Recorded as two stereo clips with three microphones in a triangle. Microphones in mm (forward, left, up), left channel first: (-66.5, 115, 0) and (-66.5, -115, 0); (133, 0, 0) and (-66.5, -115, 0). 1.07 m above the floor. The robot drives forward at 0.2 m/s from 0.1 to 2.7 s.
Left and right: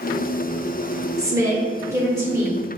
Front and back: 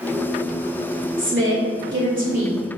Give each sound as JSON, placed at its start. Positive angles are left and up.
{"t": 1.2, "sound": "a woman speaking", "azimuth_deg": -165, "distance_m": 1.3}